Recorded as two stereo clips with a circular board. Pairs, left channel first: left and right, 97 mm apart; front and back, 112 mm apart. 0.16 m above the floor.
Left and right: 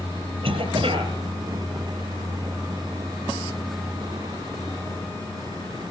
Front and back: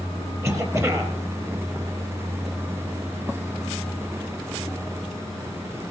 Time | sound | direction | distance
0.4 | a cough | 115° right | 4 m